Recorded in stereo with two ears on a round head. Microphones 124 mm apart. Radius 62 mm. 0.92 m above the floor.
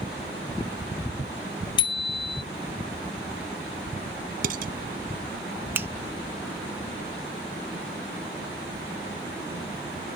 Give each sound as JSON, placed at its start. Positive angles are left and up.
{"t": 1.8, "sound": "a bicycle bell", "side_deg": 40}
{"t": 4.4, "sound": "dishes clattering", "side_deg": -70}
{"t": 5.8, "sound": "a finger snap", "side_deg": -15}